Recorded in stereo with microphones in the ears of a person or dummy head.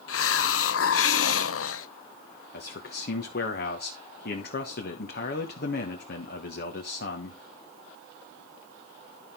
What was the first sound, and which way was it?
A hiss, 70° left (ahead or behind).